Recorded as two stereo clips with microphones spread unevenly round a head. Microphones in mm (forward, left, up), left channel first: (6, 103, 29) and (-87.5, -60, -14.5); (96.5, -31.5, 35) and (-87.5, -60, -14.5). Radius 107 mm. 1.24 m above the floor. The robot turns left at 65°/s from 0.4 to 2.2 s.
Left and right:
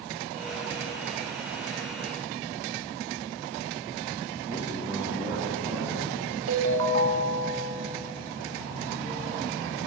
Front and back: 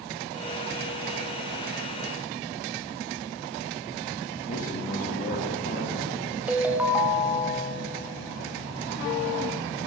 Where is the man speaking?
35° right, 1.8 m.